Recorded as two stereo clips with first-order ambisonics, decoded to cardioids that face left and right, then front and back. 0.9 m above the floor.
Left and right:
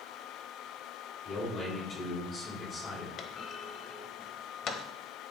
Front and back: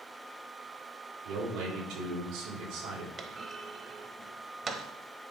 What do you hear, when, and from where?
1.2 s a man speaking: 150° left, 4 m
3.2 s a clunk: 120° left, 0.8 m